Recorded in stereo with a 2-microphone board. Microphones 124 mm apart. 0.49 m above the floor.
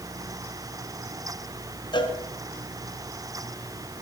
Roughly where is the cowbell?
Left.